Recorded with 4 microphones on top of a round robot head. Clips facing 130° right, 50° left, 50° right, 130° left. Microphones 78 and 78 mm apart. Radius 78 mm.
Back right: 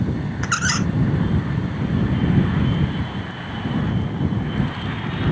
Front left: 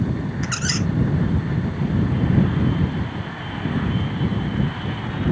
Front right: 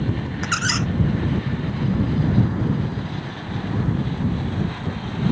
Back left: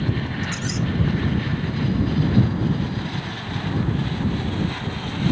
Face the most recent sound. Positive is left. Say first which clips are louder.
# back right 7 dB, front right 3 dB
turn(degrees=-80)